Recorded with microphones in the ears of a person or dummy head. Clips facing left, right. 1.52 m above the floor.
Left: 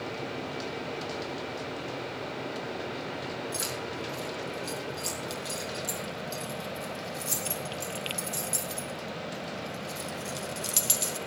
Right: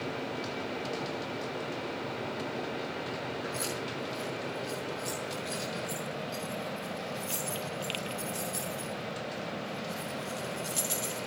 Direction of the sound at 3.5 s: 80° left.